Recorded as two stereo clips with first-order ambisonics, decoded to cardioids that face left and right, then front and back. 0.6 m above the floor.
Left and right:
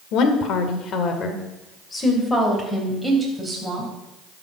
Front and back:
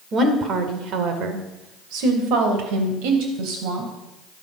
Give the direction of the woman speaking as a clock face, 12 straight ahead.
8 o'clock.